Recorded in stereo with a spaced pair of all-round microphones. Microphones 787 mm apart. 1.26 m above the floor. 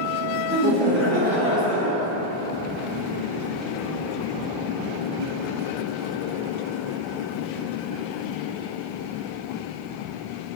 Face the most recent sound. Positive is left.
turn(degrees=60)  # may be behind; listen again after turning